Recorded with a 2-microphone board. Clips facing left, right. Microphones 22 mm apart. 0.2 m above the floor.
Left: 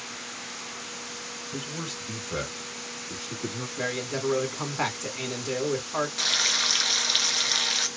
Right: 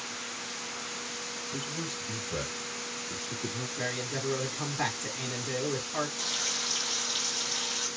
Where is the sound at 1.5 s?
40° left (ahead or behind), 1.5 m.